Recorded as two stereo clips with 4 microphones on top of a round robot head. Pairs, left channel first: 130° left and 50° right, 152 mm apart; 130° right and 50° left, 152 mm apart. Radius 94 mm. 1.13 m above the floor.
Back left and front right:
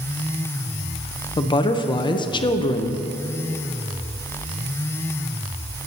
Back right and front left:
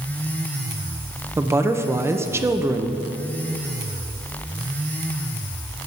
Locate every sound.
1.4 s a woman speaking: 110° left, 0.6 m